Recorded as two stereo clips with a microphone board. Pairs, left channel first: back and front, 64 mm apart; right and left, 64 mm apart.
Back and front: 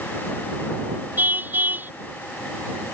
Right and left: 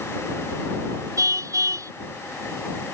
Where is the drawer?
I don't hear a drawer.